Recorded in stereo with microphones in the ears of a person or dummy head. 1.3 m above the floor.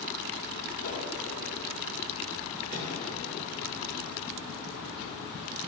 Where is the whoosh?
55° left (ahead or behind), 2.0 m.